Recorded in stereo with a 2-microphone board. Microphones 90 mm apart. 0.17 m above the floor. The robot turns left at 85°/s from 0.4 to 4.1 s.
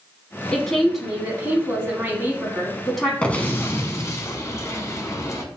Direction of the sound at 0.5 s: 10° left (ahead or behind).